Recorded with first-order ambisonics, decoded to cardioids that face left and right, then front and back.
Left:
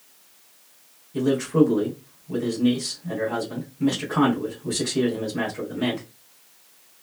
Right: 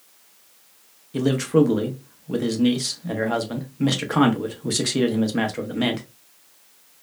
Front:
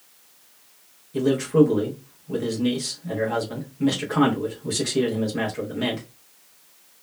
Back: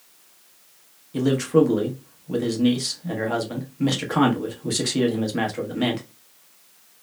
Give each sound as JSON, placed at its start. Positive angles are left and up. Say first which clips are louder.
{"t": 1.1, "sound": "a man speaking", "louder": "right 1 dB, even", "azimuth_deg": -110, "distance_m": 0.7}